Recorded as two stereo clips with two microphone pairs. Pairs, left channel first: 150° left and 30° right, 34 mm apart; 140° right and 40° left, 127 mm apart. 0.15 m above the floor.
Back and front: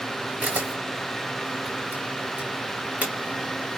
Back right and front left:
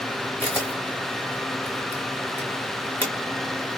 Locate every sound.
0.4 s a camera shutter: 70° right, 2 m